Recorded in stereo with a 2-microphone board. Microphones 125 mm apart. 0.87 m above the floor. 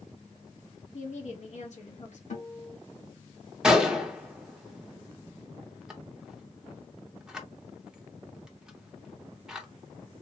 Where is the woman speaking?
60° left (ahead or behind), 1.2 m.